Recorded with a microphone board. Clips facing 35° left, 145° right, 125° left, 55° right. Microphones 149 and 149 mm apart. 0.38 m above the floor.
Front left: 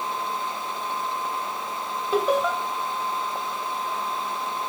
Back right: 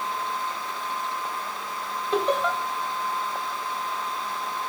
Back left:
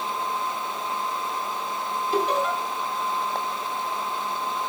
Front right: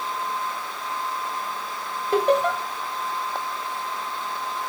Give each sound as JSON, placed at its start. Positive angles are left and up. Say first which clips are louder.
{"t": 2.1, "sound": "laughter", "louder": "front left 2 dB, front right 5 dB", "azimuth_deg": -50, "distance_m": 2.5}